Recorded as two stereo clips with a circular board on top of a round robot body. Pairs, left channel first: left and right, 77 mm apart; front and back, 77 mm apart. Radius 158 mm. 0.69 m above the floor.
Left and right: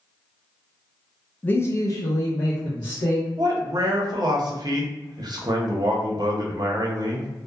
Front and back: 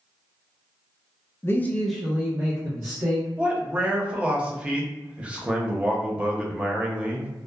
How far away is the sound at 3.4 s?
About 0.8 m.